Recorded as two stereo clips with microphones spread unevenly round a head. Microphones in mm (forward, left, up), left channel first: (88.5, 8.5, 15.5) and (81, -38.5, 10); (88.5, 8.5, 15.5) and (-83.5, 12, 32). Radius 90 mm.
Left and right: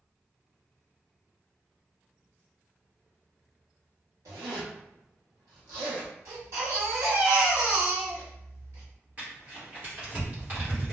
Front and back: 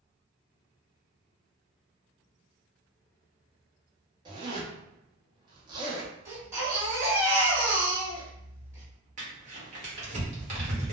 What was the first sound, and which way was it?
A zipper, 115° right.